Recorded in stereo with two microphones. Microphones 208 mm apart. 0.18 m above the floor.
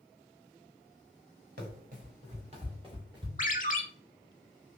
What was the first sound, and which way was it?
Running footsteps, 50° right (ahead or behind).